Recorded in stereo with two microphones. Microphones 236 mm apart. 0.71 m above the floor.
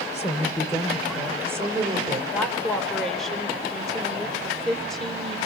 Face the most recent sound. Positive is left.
turn(degrees=0)  # may be behind; listen again after turning